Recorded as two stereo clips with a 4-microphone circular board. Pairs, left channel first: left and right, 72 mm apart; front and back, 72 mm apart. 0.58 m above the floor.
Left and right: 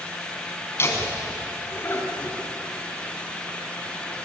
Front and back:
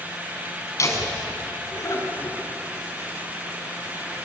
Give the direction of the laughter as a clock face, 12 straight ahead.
11 o'clock.